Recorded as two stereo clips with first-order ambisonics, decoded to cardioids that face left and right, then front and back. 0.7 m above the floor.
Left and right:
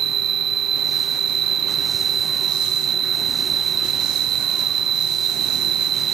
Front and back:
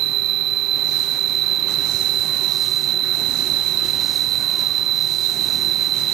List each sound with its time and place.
0.0 s an insect: 145° right